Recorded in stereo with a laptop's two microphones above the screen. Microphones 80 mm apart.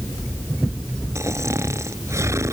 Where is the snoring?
35° right (ahead or behind).